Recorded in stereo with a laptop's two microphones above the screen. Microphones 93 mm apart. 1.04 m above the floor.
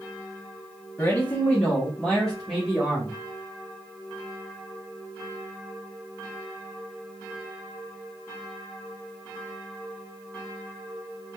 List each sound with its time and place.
1.0 s a man speaking: 25° left (ahead or behind), 0.8 m; by 3.2 s centre (ahead or behind), 1.4 m